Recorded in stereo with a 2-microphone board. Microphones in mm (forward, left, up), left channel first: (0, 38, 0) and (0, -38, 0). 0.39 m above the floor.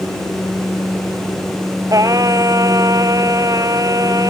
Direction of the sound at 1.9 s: 50° right (ahead or behind).